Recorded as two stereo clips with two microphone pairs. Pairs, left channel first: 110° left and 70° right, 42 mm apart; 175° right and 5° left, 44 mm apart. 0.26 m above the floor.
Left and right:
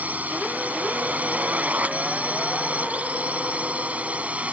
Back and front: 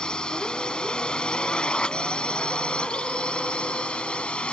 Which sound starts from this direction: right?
A drone, at 0.0 s.